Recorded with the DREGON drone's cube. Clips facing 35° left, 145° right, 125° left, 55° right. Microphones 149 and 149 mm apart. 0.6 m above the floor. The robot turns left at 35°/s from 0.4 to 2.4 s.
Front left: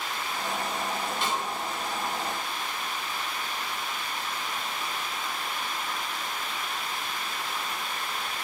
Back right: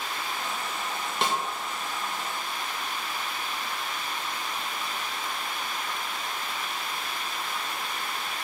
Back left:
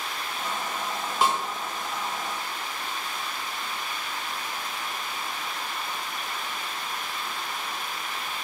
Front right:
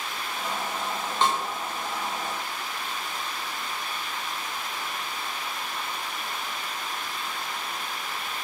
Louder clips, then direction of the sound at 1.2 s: Back right 5 dB, back left 1 dB; 155° right.